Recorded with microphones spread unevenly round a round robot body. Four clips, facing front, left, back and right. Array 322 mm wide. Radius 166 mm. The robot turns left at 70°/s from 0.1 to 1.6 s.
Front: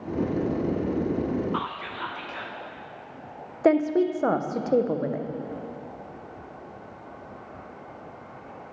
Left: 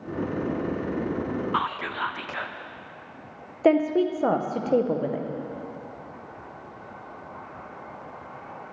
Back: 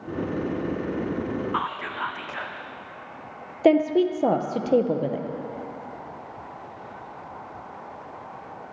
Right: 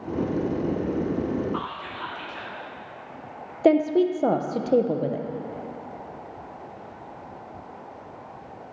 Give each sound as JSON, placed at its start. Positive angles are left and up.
{"t": 1.5, "sound": "whispering", "azimuth_deg": 115, "distance_m": 0.9}
{"t": 3.6, "sound": "a woman speaking", "azimuth_deg": -145, "distance_m": 0.7}